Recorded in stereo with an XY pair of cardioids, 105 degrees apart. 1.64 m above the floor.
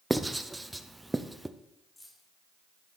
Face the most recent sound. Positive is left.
turn(degrees=15)